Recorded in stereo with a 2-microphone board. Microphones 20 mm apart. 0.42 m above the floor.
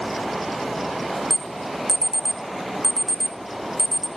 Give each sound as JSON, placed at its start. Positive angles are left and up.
{"t": 1.3, "sound": "an alarm", "side_deg": -15, "distance_m": 1.3}